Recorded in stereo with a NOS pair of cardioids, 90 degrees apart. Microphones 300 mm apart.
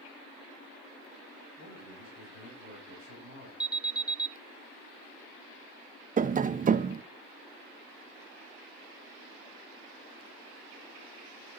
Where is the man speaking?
65° left, 5.5 m; by 3.5 s 75° left, 6.5 m.